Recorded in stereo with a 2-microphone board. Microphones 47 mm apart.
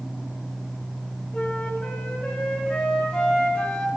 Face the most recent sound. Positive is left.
turn(degrees=30)  # may be behind; listen again after turning